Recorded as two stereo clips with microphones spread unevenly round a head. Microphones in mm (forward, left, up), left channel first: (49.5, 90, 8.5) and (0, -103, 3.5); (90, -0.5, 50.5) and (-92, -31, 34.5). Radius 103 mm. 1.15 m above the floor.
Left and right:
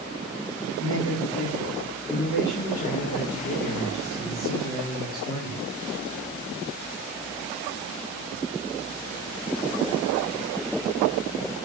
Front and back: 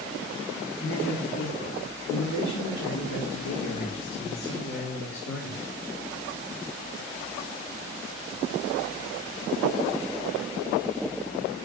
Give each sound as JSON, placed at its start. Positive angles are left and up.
{"t": 0.8, "sound": "a man speaking", "azimuth_deg": 55, "distance_m": 2.5}